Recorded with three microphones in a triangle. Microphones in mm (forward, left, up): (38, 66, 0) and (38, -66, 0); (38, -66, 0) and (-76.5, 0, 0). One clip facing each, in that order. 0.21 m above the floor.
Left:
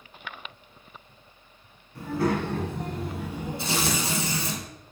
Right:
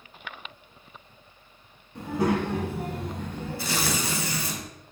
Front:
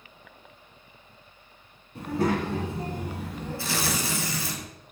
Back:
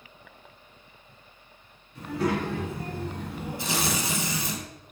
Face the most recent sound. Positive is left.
turn(degrees=115)